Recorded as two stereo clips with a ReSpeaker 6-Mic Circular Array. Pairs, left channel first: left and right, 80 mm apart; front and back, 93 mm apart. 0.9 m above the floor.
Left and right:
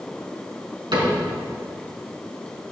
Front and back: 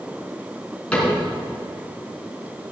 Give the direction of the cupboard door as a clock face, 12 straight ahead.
3 o'clock.